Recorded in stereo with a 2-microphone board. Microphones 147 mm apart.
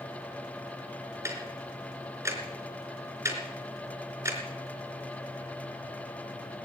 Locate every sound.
1.2 s ticking: 20° right (ahead or behind), 4 m